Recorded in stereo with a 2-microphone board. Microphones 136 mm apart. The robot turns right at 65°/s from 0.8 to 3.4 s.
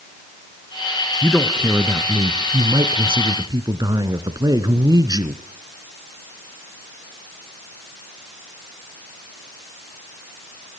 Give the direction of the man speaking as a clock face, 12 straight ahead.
6 o'clock.